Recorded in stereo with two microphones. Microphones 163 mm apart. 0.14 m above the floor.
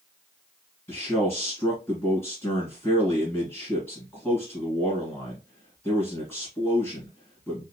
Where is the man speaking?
15° left (ahead or behind), 1.6 m.